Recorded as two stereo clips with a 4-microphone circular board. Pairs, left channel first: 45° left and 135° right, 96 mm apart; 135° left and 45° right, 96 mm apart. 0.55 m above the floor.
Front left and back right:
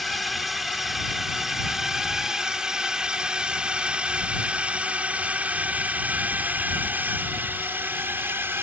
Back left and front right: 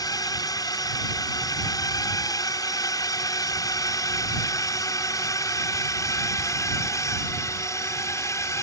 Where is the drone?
135° left; by 8.6 s 170° left.